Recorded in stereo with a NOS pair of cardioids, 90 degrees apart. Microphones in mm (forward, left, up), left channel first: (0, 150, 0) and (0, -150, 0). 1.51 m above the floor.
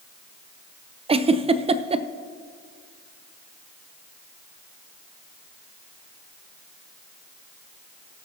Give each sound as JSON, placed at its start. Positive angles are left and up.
{"t": 1.1, "sound": "a giggle", "azimuth_deg": -20, "distance_m": 0.6}